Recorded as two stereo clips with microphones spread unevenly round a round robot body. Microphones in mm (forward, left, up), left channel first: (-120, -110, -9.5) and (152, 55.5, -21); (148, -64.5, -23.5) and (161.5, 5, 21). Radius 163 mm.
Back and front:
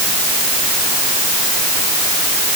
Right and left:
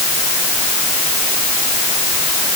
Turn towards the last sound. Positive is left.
No sound to turn to.